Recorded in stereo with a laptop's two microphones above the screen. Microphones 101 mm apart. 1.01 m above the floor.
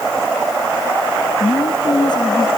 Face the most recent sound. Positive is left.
turn(degrees=45)  # may be behind; listen again after turning